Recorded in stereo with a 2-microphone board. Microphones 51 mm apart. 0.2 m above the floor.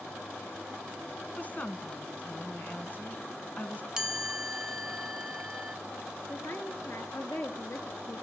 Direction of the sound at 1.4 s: 35° left (ahead or behind).